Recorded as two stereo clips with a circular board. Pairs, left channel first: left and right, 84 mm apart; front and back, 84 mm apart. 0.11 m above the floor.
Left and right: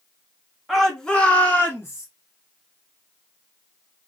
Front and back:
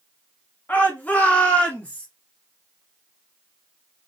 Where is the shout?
5° right, 1.3 m; by 2.1 s 70° left, 1.5 m.